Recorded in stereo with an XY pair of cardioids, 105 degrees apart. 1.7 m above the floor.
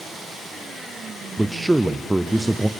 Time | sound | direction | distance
1.4 | a man speaking | 10° right | 0.6 m